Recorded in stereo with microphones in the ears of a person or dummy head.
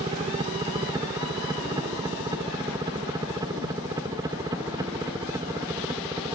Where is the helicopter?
20° right (ahead or behind); by 6.3 s 10° right (ahead or behind).